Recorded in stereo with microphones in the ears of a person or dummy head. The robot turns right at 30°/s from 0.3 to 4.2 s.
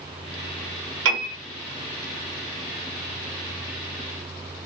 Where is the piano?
65° right (ahead or behind), 1.5 m; by 1.4 s 60° right (ahead or behind), 1.5 m.